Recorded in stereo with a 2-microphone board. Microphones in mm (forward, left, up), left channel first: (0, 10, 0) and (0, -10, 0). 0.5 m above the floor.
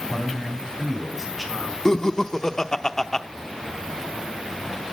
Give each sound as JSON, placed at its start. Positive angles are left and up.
{"t": 0.1, "sound": "a man speaking", "side_deg": 10, "distance_m": 4.5}
{"t": 1.9, "sound": "laughter", "side_deg": 30, "distance_m": 0.8}